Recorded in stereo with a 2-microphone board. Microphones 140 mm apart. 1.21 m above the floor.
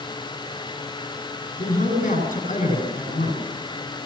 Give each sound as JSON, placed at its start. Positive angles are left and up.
{"t": 1.6, "sound": "a man speaking", "side_deg": 70, "distance_m": 9.5}